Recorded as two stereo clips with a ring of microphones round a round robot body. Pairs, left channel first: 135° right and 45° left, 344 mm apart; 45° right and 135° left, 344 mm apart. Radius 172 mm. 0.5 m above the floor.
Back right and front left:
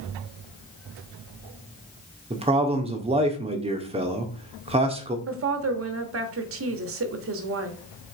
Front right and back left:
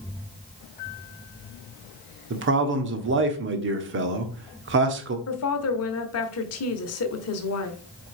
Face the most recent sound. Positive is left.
turn(degrees=0)